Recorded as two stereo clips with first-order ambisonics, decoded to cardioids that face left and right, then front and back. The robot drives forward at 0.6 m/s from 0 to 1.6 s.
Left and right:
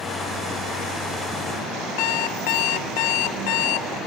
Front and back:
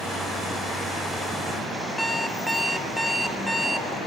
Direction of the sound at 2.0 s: 90° left.